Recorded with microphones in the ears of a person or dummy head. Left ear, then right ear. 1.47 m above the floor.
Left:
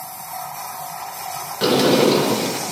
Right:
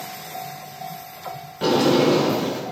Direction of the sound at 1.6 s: 45° left (ahead or behind).